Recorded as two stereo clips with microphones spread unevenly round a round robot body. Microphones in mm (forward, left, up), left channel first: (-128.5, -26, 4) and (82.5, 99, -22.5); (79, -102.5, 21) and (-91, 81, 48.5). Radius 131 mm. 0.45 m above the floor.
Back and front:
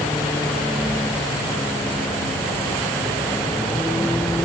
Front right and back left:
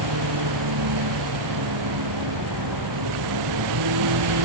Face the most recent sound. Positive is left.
turn(degrees=125)